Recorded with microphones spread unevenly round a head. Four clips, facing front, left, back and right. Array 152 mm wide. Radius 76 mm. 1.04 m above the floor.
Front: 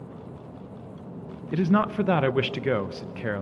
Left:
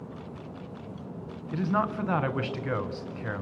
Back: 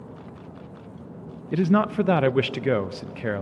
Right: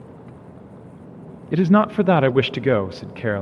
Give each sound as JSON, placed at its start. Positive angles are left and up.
{"t": 1.5, "sound": "a man speaking", "azimuth_deg": -95, "distance_m": 0.5}